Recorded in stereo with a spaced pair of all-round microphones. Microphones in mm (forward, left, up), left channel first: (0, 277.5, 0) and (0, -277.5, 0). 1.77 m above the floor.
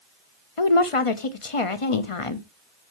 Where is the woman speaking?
65° left (ahead or behind), 1.1 m.